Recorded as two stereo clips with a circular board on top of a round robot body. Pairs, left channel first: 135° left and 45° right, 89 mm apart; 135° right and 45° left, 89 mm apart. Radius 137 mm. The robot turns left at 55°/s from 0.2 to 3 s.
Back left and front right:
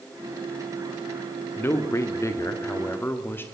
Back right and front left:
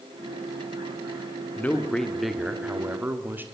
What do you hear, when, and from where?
1.6 s a man speaking: 175° left, 1.6 m; by 3.4 s 95° left, 1.6 m